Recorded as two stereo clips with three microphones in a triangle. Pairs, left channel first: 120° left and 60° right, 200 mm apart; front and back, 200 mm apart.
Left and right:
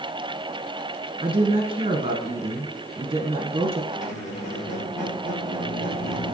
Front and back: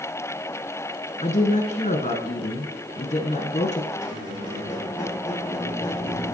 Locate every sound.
1.2 s a woman speaking: 20° right, 1.4 m
3.9 s a squeak: 75° left, 2 m